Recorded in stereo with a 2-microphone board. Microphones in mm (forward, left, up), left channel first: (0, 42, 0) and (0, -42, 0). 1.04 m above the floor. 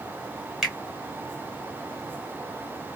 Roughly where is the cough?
No cough in this recording.